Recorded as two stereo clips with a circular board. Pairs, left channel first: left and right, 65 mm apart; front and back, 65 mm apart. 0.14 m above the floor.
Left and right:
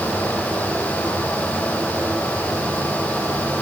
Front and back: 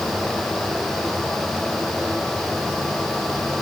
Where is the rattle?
No rattle in this recording.